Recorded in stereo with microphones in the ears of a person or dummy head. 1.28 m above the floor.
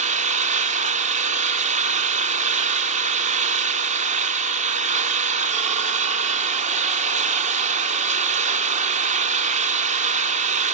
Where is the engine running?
40° right (ahead or behind), 0.9 m.